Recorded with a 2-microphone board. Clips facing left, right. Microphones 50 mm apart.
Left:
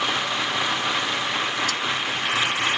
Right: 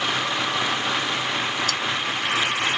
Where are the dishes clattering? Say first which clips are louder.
Right 1 dB; 55° right (ahead or behind).